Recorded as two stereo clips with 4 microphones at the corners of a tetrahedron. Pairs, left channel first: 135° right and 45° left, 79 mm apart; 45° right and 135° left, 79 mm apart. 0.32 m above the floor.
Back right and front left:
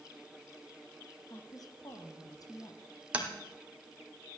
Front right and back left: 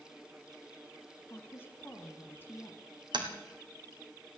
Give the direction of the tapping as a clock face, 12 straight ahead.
8 o'clock.